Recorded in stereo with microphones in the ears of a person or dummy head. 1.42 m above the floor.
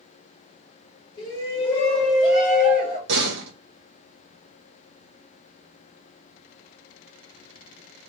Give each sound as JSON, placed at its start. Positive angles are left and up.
{"t": 1.2, "sound": "a shout", "side_deg": 30, "distance_m": 2.0}
{"t": 3.1, "sound": "a door slam", "side_deg": -65, "distance_m": 1.1}